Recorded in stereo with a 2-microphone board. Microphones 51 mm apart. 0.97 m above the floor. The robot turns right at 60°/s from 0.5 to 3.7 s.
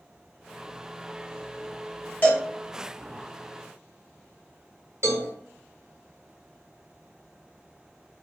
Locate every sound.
2.2 s a cowbell: 35° left (ahead or behind), 0.8 m
5.0 s a cowbell: 55° right (ahead or behind), 0.8 m